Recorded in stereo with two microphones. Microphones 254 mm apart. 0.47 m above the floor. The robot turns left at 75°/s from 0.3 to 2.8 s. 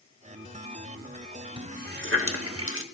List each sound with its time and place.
1.6 s a running tap: 20° right (ahead or behind), 0.8 m; by 2.8 s 55° right (ahead or behind), 0.8 m